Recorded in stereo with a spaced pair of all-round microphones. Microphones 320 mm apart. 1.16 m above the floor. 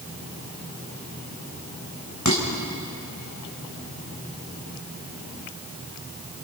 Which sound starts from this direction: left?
Dishes clattering, at 2.2 s.